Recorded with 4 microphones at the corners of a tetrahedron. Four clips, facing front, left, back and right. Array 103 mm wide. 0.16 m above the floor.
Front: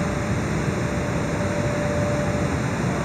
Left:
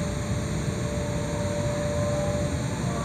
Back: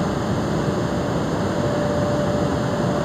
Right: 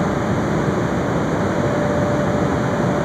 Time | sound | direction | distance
0.0 | running water | 110° right | ?